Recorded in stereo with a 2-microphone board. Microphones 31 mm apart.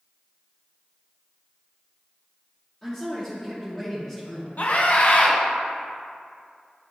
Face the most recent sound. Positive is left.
turn(degrees=55)  # may be behind; listen again after turning